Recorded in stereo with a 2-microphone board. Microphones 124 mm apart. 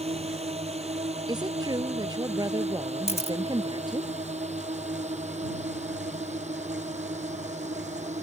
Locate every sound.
0.0 s a drone: 55° right (ahead or behind); by 8.2 s 70° right (ahead or behind)
1.3 s a woman speaking: 35° right (ahead or behind)
3.1 s a camera shutter: 55° left (ahead or behind)